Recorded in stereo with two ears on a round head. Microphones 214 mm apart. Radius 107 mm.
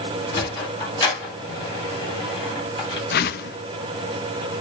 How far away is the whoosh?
About 0.5 m.